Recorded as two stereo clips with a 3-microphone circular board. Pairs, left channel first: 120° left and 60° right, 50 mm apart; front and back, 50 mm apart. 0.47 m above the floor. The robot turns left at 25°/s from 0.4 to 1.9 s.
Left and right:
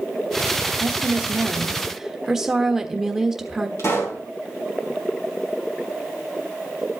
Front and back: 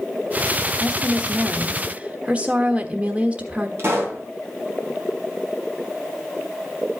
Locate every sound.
0.8 s a woman speaking: 110° right, 1.2 m; by 3.7 s 135° right, 1.2 m
3.8 s a pop: 140° left, 4 m